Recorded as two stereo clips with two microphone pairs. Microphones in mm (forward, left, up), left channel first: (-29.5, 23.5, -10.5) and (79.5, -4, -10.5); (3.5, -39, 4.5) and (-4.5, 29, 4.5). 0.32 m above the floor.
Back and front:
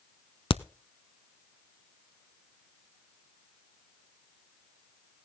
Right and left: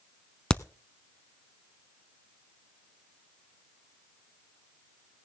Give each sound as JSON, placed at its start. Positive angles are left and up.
{"t": 0.5, "sound": "a crack", "azimuth_deg": -160, "distance_m": 0.5}